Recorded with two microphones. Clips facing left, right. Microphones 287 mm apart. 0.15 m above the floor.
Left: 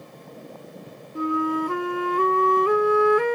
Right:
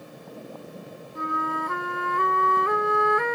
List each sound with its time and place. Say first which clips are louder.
1.1 s a flute: left 9 dB; 35° left (ahead or behind)